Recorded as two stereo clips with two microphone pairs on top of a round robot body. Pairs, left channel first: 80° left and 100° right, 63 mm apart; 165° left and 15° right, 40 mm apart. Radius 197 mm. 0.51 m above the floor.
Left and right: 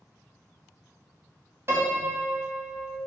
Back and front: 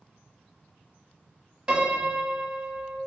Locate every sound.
1.7 s a piano: 70° right, 1.1 m